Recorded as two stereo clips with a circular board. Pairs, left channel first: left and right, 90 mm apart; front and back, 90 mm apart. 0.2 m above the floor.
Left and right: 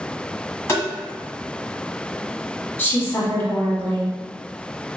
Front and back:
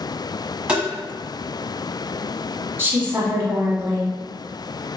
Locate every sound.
0.7 s tapping: 110° left, 1.3 m
2.8 s a woman speaking: 135° left, 1.1 m